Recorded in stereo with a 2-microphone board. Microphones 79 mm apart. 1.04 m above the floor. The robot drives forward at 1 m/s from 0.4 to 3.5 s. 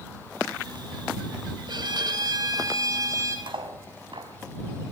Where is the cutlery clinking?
85° right, 4 m.